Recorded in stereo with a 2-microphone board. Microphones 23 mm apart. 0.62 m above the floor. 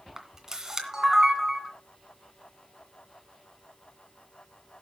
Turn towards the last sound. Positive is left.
turn(degrees=-25)  # may be behind; listen again after turning